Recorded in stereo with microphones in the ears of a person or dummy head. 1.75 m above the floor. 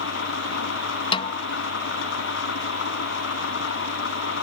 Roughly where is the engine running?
Left.